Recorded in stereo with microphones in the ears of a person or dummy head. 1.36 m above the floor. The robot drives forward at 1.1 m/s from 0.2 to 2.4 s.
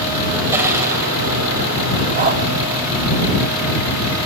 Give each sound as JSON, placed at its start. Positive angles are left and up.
{"t": 0.5, "sound": "crushing", "side_deg": -10, "distance_m": 7.0}
{"t": 2.2, "sound": "a dog barking", "side_deg": -40, "distance_m": 2.0}